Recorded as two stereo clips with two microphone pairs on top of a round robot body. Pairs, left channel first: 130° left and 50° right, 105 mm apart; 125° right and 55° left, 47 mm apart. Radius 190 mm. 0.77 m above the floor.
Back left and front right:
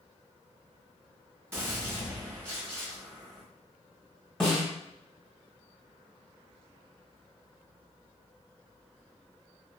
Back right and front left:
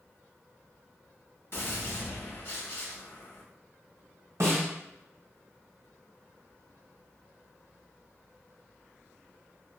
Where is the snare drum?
45° left, 1.5 m.